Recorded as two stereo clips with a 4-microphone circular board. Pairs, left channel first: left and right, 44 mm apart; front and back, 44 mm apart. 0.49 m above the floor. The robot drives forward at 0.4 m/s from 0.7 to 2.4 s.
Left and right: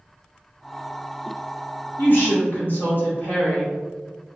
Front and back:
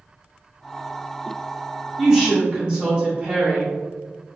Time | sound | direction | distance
2.0 | a woman speaking | 105° left | 1.0 m